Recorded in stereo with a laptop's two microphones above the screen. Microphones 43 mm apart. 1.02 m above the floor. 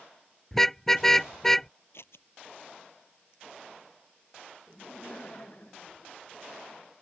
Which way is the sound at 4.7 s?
35° left (ahead or behind).